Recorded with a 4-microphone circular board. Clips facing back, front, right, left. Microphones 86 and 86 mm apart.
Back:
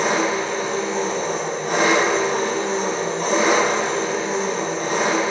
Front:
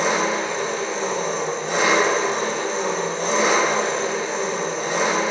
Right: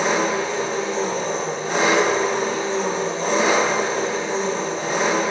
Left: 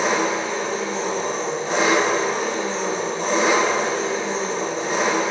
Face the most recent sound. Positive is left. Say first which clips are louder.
# back 1 dB, right 1 dB
turn(degrees=155)